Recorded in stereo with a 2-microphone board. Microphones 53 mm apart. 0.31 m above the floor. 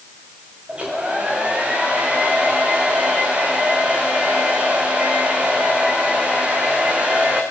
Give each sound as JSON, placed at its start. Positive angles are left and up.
{"t": 0.7, "sound": "a hair dryer", "side_deg": -20, "distance_m": 5.5}